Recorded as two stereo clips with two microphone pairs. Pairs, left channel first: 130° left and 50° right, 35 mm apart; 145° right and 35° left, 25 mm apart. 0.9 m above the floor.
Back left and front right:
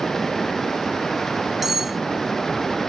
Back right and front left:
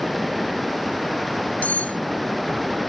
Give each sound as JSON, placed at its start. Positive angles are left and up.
{"t": 1.6, "sound": "cutlery clinking", "azimuth_deg": -135}